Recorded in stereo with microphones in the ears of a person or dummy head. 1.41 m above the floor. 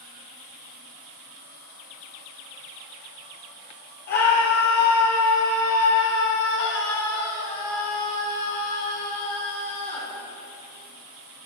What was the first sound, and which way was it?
A scream, 50° left (ahead or behind).